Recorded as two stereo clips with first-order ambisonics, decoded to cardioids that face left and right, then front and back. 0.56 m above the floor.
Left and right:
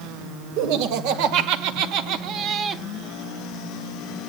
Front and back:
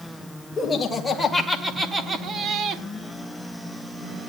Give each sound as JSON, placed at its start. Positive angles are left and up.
{"t": 0.6, "sound": "laughter", "azimuth_deg": -80, "distance_m": 2.5}